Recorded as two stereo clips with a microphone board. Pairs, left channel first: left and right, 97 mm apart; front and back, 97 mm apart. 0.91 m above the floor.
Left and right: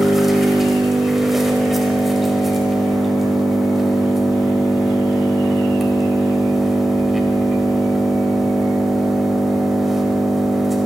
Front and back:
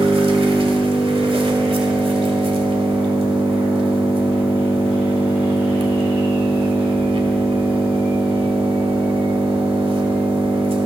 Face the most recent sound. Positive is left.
turn(degrees=180)